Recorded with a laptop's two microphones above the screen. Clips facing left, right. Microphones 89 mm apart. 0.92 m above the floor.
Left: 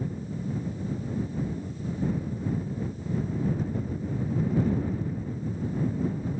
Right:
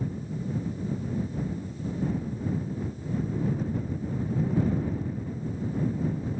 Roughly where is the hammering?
I don't hear hammering.